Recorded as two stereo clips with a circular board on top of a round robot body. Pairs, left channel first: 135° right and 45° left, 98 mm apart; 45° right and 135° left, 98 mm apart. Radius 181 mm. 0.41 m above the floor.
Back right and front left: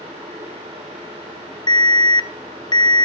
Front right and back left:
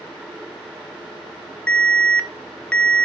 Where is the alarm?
120° right, 1.2 m.